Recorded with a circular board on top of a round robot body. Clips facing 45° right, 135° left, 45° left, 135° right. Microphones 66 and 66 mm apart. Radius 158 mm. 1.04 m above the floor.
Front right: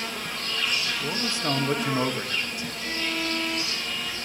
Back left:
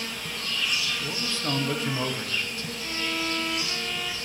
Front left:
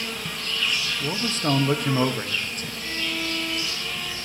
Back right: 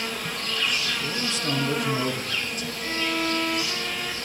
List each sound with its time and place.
0.0 s an insect: 95° right, 1.1 m
1.0 s a man speaking: 20° left, 0.8 m
2.8 s a violin: 165° right, 1.1 m